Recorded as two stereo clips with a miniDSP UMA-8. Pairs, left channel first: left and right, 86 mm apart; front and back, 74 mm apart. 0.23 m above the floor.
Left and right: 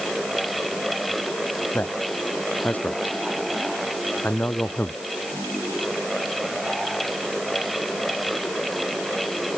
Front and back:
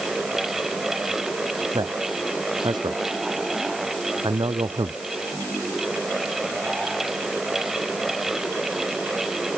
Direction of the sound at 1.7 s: 160° left.